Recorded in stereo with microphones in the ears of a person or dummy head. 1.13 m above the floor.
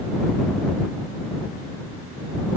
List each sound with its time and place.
Only background noise.